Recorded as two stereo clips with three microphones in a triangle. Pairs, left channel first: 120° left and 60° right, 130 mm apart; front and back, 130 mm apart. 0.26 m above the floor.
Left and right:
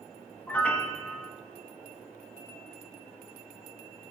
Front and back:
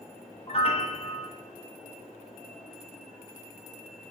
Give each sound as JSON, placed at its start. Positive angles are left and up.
{"t": 0.5, "sound": "a piano", "azimuth_deg": 40, "distance_m": 0.5}